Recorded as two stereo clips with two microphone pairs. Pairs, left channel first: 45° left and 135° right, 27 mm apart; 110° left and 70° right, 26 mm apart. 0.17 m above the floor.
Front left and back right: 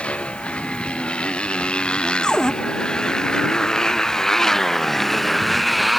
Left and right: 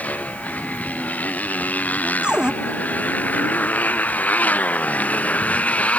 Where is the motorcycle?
90° left; by 6.0 s 140° left.